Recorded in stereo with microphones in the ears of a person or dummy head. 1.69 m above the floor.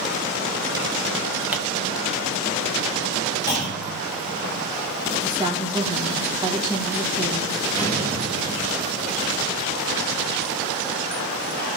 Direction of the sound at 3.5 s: 20° left (ahead or behind).